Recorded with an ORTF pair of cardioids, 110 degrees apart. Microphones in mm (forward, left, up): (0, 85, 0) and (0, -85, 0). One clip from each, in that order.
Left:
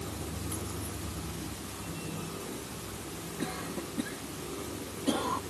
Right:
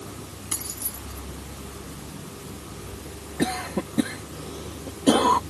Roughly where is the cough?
Right.